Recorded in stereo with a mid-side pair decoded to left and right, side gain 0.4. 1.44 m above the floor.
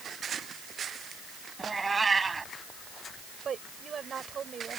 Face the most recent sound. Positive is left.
turn(degrees=-50)